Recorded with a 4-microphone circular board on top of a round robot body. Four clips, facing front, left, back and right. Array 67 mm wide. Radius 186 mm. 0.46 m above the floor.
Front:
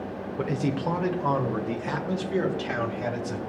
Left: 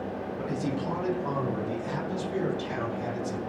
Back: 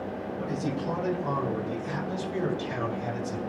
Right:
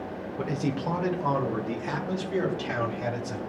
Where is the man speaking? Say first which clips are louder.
Right 3 dB, front 5 dB; 20° right, 2.5 m; by 3.4 s 35° right, 4.5 m.